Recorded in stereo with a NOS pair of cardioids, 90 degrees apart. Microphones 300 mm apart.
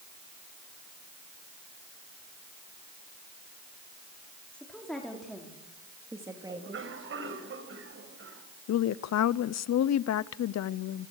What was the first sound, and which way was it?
A woman speaking, 5° left.